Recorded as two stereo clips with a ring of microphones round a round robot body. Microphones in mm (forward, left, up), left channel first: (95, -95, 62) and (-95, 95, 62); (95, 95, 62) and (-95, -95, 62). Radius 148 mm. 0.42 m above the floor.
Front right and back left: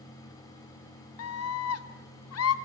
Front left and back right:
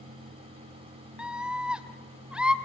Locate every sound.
1.2 s a scream: 50° right, 1.8 m